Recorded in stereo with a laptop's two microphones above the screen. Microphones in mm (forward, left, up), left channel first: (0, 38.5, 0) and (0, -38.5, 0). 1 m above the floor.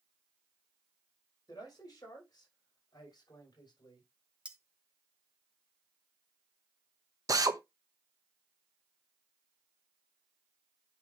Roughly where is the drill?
Right.